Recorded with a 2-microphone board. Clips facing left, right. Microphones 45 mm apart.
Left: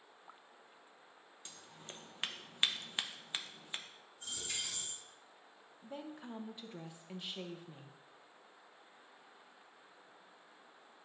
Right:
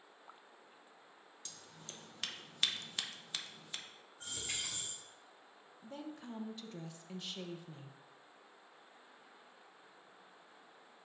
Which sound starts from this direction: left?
Scissors, at 1.4 s.